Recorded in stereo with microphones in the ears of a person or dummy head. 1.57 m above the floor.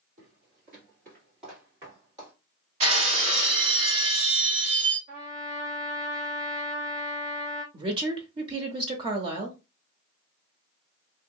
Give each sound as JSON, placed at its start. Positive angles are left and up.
{"t": 0.2, "sound": "footsteps", "side_deg": -40, "distance_m": 2.0}
{"t": 2.8, "sound": "breaking glass", "side_deg": -40, "distance_m": 1.8}
{"t": 5.1, "sound": "a trumpet", "side_deg": -25, "distance_m": 1.1}
{"t": 7.7, "sound": "a woman speaking", "side_deg": -30, "distance_m": 0.7}